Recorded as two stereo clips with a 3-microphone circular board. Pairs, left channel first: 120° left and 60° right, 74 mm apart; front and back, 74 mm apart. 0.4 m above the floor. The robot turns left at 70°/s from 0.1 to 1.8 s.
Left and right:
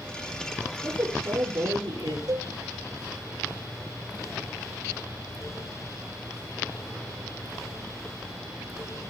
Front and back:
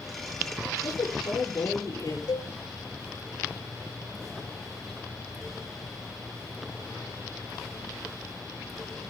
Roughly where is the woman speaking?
Ahead left.